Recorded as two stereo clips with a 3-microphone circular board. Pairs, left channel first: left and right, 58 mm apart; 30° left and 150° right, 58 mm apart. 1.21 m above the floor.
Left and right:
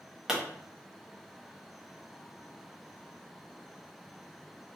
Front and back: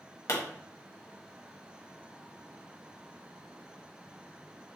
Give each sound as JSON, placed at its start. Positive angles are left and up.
{"t": 0.3, "sound": "a pop", "azimuth_deg": -10, "distance_m": 1.0}